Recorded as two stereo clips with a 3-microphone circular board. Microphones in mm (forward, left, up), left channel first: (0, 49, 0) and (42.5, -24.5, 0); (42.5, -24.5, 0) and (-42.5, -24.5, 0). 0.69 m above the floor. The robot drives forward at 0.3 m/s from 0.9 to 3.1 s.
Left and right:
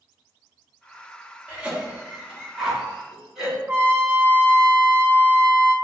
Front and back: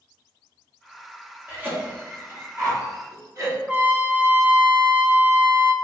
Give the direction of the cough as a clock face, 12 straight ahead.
4 o'clock.